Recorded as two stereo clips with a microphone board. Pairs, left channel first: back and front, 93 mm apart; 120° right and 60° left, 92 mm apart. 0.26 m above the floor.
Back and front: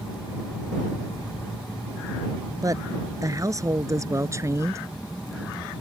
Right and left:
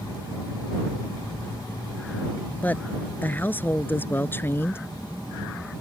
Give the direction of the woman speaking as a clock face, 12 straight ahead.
2 o'clock.